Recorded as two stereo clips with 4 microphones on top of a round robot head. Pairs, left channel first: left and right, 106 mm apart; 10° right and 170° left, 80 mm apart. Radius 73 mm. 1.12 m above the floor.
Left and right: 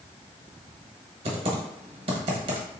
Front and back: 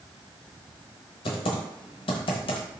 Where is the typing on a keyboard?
40° right, 0.9 m.